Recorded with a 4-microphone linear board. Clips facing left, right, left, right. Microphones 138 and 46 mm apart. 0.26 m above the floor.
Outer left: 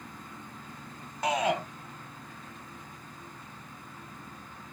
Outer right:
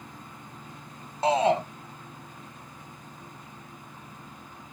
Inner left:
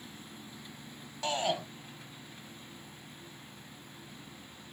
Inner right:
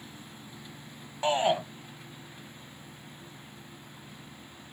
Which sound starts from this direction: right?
A shout, at 1.2 s.